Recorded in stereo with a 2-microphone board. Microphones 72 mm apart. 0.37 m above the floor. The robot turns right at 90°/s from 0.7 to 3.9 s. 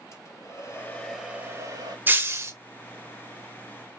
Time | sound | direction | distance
0.1 | a hair dryer | 140° left | 2 m
2.1 | breaking glass | 135° right | 0.8 m